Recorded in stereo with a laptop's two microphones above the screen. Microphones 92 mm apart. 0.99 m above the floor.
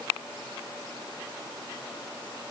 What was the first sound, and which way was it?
Only background noise.